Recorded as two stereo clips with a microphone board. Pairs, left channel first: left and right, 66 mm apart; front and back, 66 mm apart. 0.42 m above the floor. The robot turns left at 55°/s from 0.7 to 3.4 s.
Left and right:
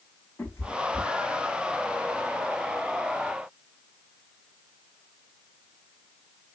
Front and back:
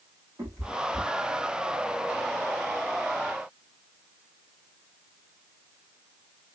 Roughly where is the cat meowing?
Behind left.